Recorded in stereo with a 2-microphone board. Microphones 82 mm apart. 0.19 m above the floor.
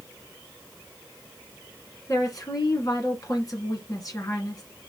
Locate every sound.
2.1 s a woman speaking: 45° left (ahead or behind), 2.5 m